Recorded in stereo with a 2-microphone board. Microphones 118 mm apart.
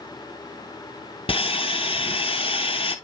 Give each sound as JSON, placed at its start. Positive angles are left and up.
{"t": 1.3, "sound": "sawing", "side_deg": 50, "distance_m": 0.7}